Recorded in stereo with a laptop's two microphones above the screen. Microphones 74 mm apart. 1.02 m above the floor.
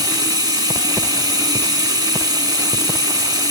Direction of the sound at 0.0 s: 65° right (ahead or behind).